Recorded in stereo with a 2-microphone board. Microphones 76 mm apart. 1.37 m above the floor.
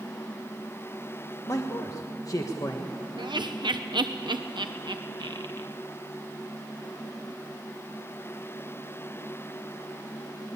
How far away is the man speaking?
About 1.4 m.